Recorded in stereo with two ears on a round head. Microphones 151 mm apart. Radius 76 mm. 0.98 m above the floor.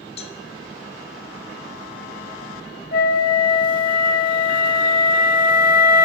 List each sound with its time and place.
0.2 s a cowbell: 35° left (ahead or behind), 1.0 m
2.9 s a flute: 55° left (ahead or behind), 0.9 m